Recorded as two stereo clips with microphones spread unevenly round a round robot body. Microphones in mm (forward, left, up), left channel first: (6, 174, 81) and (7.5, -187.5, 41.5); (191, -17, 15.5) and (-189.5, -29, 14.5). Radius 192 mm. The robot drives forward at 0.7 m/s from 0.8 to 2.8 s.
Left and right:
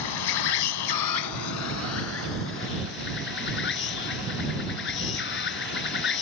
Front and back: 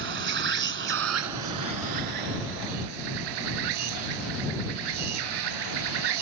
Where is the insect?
120° left; by 6.2 s 150° left.